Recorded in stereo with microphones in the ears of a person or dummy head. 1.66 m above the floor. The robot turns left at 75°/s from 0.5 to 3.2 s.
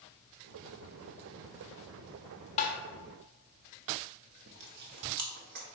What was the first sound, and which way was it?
Tapping, 40° left (ahead or behind).